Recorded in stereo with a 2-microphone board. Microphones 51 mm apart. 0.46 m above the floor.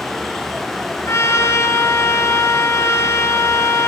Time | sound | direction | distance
1.1 | a trumpet | 55° left (ahead or behind) | 2 m